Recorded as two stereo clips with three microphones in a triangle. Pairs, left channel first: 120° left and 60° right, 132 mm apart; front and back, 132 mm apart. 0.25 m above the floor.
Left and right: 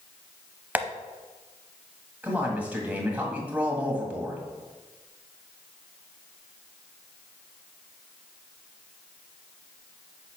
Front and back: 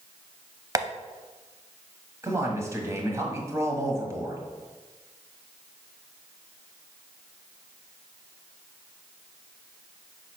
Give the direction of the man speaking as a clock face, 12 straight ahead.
4 o'clock.